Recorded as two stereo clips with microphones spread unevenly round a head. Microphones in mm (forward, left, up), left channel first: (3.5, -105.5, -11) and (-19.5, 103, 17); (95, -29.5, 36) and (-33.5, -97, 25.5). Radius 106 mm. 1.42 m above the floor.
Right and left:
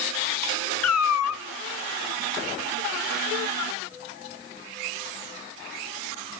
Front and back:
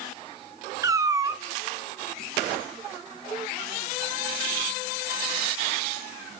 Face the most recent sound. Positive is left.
turn(degrees=-85)